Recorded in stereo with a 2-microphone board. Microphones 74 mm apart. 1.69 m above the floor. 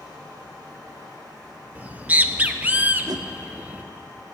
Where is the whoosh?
65° right (ahead or behind), 0.5 m.